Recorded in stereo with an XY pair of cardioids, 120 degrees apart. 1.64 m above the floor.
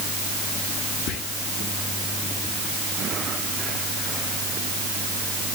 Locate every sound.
1.1 s whispering: 70° left, 0.7 m